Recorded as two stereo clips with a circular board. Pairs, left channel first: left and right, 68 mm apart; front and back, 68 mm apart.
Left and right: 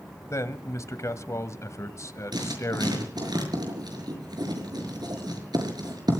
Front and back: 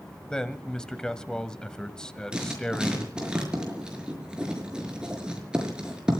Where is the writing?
100° right, 5.5 m.